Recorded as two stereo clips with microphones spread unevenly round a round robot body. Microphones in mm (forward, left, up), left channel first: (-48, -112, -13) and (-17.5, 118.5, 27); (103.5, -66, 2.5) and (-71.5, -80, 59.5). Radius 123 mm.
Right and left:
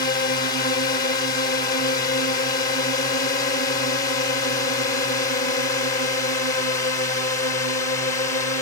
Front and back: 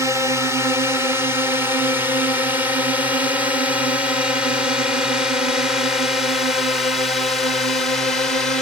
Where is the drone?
80° right; by 8.6 s 45° right.